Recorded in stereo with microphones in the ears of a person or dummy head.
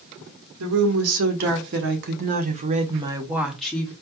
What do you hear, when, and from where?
0.6 s a woman speaking: 80° right, 1.6 m; by 3.9 s 15° left (ahead or behind), 0.9 m